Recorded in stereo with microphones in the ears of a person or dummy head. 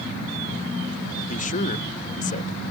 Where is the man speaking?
40° left (ahead or behind).